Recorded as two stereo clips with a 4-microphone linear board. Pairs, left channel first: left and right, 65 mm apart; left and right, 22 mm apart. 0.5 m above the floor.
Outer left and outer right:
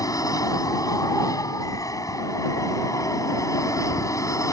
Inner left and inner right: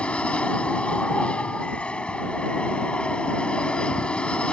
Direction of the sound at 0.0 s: 60° left (ahead or behind).